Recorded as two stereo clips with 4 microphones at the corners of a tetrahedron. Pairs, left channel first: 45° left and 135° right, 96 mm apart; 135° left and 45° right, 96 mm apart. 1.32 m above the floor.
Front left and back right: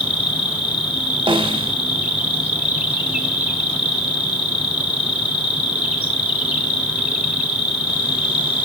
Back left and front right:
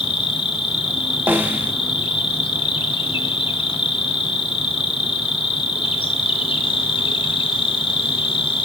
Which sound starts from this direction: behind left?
An insect, at 0.0 s.